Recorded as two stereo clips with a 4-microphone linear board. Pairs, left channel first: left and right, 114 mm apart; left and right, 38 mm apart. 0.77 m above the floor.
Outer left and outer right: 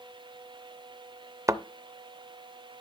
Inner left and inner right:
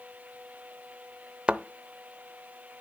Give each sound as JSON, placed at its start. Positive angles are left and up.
{"t": 1.5, "sound": "a thud", "side_deg": -30, "distance_m": 0.6}